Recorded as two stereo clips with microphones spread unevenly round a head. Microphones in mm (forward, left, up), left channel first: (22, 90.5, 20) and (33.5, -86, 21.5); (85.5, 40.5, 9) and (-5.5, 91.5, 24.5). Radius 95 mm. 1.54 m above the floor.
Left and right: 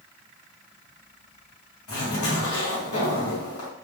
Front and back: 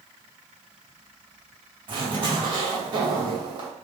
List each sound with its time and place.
1.9 s a zipper: 110° left, 1.1 m